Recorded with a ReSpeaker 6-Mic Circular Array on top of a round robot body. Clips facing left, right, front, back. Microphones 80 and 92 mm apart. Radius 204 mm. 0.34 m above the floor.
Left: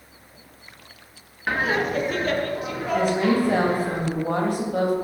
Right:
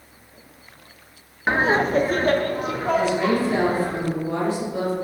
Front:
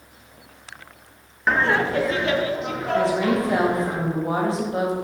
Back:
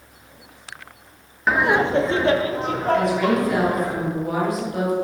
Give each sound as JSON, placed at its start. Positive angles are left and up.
{"t": 1.5, "sound": "laughter", "azimuth_deg": -95, "distance_m": 0.9}
{"t": 2.9, "sound": "a woman speaking", "azimuth_deg": 60, "distance_m": 3.0}